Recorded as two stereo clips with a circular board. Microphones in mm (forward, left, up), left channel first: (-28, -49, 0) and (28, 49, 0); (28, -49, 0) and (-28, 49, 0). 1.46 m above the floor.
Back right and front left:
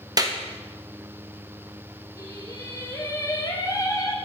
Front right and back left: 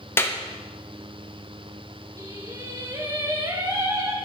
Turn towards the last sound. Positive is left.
turn(degrees=180)